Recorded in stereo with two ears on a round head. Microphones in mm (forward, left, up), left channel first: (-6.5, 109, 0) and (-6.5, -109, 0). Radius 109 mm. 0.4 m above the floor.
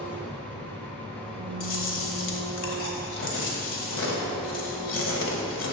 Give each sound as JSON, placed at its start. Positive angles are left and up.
{"t": 0.0, "sound": "an engine running", "side_deg": 5, "distance_m": 1.9}
{"t": 1.6, "sound": "chewing", "side_deg": 55, "distance_m": 1.6}